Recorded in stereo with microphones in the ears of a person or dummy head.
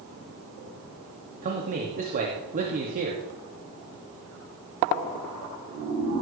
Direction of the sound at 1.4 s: 40° right (ahead or behind).